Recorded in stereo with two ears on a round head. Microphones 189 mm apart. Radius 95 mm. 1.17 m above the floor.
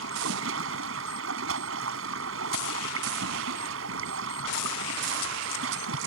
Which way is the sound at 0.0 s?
75° right (ahead or behind).